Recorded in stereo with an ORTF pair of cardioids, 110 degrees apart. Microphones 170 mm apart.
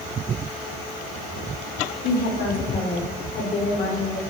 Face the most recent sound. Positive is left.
turn(degrees=45)